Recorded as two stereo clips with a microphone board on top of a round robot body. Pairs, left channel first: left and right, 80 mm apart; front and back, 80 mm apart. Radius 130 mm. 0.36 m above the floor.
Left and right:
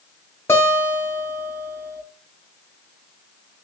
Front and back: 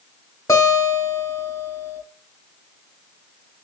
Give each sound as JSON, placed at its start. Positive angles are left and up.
{"t": 0.5, "sound": "a guitar", "azimuth_deg": 35, "distance_m": 1.5}